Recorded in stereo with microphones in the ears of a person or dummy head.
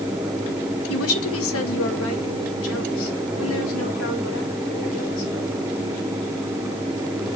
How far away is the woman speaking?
About 1.3 m.